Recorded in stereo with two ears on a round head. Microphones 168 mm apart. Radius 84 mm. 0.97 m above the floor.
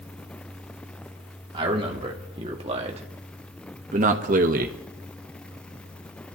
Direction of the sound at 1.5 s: 30° right (ahead or behind).